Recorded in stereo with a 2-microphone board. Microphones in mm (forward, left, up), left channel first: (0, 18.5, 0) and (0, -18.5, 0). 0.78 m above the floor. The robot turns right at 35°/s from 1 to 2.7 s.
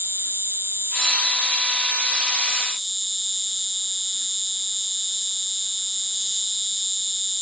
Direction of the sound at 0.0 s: 70° right.